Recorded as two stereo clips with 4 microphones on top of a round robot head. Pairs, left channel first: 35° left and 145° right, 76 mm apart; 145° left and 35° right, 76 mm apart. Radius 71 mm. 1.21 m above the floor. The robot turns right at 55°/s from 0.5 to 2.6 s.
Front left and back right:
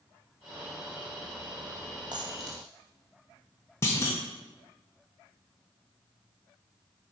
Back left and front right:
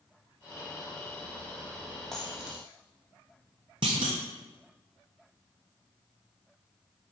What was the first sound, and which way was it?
A dropped coin, 130° right.